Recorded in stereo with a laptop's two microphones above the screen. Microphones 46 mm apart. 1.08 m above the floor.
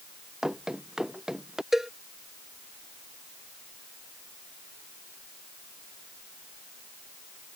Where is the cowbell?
10° right (ahead or behind).